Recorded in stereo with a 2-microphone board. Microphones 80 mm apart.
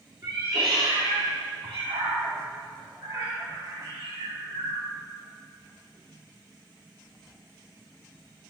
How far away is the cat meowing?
About 2.0 m.